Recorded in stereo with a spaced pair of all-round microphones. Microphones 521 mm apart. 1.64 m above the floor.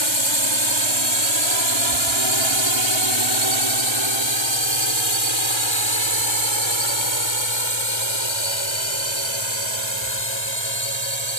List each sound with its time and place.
0.0 s a drone: 60° right (ahead or behind)